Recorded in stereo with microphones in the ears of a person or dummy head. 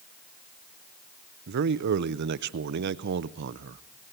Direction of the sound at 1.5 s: 60° right (ahead or behind).